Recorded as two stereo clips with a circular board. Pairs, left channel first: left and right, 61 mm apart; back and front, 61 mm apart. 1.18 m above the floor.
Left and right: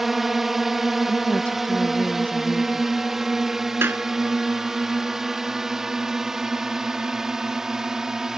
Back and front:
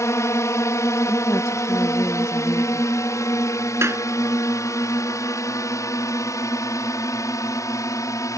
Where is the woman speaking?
155° left.